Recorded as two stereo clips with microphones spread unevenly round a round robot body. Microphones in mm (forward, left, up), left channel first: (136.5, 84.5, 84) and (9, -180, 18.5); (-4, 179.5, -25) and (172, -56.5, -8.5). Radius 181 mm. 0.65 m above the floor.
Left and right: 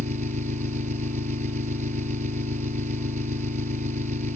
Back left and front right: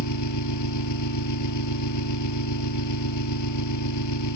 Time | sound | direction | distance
0.0 | an engine running | 175° left | ?